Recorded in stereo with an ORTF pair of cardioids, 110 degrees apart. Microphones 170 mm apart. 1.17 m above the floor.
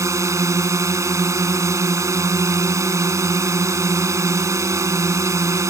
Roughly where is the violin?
I don't hear a violin.